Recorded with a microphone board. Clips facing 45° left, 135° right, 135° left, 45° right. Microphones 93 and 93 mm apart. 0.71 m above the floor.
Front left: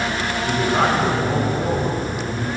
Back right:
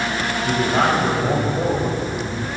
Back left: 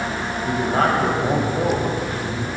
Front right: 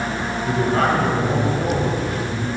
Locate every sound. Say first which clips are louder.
0.4 s a man speaking: even, even; 170° right, 4 m; by 2.5 s 160° left, 2.5 m